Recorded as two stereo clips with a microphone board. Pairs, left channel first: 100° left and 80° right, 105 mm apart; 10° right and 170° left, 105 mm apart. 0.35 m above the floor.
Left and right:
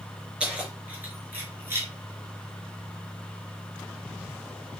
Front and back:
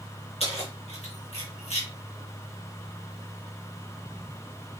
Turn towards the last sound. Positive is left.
turn(degrees=-15)